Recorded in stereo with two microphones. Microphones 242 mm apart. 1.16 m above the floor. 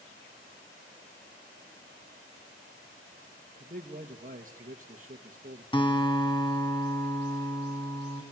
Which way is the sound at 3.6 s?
35° right (ahead or behind).